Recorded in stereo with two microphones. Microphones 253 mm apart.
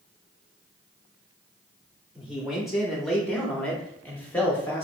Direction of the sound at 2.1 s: 5° right (ahead or behind).